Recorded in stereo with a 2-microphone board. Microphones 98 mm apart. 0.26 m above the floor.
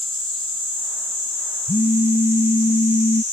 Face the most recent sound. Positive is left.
turn(degrees=80)